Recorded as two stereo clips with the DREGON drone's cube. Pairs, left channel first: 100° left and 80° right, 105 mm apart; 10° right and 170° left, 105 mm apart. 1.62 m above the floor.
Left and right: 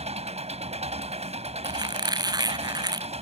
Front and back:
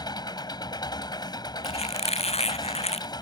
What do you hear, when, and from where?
0.0 s an engine running: 60° right
1.6 s a squeak: 25° right